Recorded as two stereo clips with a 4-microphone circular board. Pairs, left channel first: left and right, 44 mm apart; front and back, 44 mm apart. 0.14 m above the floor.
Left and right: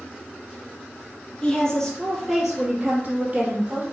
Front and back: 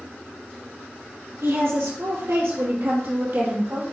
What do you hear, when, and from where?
1.4 s a woman speaking: 160° left, 3.5 m; by 3.8 s 145° right, 4 m